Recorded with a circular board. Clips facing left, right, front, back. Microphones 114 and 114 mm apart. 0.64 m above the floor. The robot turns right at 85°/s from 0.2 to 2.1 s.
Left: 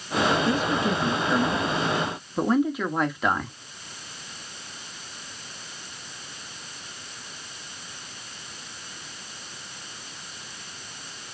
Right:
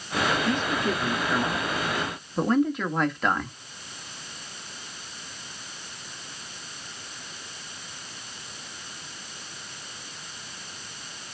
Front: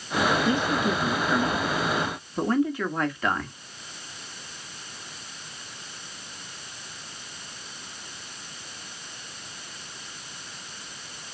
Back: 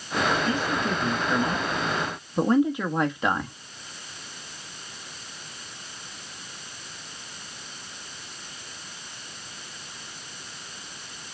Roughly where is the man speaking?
Ahead left.